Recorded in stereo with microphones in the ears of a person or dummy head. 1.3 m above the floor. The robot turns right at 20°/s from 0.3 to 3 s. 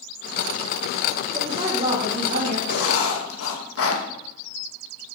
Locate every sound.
1.3 s a woman speaking: 20° right (ahead or behind), 1.7 m; by 2.6 s 45° right (ahead or behind), 1.7 m
2.7 s writing: 80° left, 2 m; by 4.0 s 75° left (ahead or behind), 2 m